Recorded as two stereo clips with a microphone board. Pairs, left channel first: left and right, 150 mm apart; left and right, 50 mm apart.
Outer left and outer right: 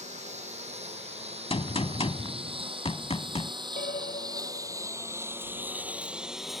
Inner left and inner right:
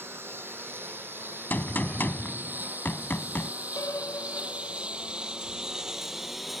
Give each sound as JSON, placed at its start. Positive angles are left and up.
{"t": 0.0, "sound": "a lawn mower", "side_deg": -50}
{"t": 1.5, "sound": "a gunshot", "side_deg": 40}
{"t": 3.8, "sound": "a piano", "side_deg": 75}